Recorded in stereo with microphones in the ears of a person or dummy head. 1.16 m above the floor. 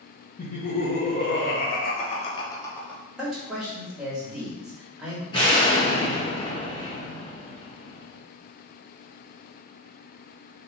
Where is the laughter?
45° left (ahead or behind), 1.1 m; by 3.0 s 5° left (ahead or behind), 0.8 m.